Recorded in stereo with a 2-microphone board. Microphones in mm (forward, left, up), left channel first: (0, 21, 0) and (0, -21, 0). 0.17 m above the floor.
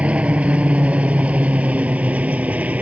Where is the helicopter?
25° right (ahead or behind); by 2.8 s 30° right (ahead or behind).